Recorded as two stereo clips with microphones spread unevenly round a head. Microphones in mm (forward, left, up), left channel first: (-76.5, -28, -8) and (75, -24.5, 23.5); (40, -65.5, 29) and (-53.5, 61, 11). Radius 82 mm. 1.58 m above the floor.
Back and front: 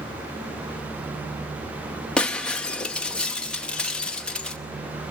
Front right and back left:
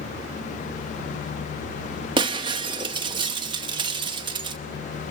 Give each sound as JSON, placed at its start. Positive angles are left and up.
{"t": 2.2, "sound": "breaking glass", "azimuth_deg": 80, "distance_m": 0.9}